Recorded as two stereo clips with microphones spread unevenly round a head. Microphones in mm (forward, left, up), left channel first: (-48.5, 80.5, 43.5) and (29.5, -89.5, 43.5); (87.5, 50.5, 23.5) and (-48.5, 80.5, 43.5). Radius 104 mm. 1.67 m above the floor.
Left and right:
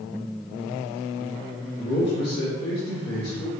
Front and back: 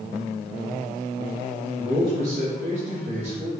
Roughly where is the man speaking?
Behind left.